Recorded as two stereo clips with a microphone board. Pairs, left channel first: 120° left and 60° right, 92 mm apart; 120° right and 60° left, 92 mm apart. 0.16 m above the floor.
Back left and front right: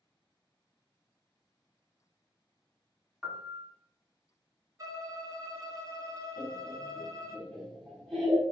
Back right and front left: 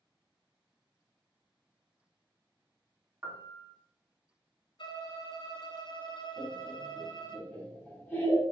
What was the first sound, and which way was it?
A piano, 35° left.